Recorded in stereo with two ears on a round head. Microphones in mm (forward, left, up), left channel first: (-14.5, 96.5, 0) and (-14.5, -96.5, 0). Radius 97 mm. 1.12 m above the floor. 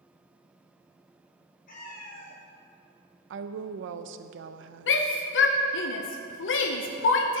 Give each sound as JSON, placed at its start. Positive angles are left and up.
{"t": 1.7, "sound": "a cat meowing", "side_deg": 40, "distance_m": 2.0}
{"t": 3.3, "sound": "a woman speaking", "side_deg": -60, "distance_m": 0.5}
{"t": 4.9, "sound": "a shout", "side_deg": 60, "distance_m": 0.7}